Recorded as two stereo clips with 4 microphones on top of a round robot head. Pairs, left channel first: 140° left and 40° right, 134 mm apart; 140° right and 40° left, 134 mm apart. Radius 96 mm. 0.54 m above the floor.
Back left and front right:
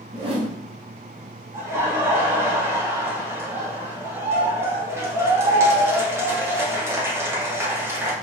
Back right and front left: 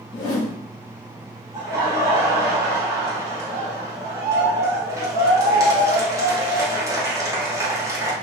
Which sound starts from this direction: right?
A whoosh, at 0.1 s.